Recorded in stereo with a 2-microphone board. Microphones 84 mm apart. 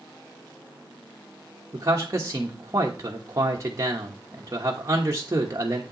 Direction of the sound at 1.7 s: 35° right (ahead or behind).